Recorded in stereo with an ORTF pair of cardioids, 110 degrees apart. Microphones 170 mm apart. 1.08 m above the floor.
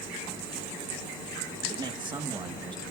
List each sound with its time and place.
1.7 s a man speaking: 25° right, 1.6 m